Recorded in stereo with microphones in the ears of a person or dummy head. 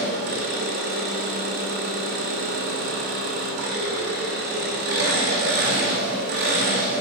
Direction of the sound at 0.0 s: 55° right (ahead or behind).